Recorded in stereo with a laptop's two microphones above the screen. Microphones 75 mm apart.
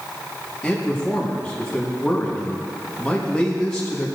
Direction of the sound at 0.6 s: 15° left (ahead or behind).